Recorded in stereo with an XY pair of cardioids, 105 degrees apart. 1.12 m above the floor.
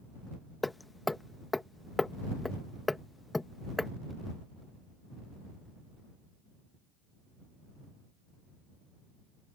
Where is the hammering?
15° left.